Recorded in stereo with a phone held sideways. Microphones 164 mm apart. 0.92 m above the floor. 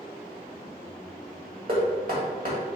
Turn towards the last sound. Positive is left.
turn(degrees=-60)  # may be behind; listen again after turning